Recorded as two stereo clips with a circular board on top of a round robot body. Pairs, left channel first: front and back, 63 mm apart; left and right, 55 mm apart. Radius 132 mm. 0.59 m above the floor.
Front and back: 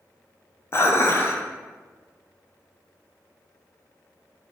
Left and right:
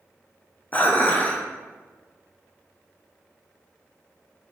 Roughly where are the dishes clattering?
Ahead left.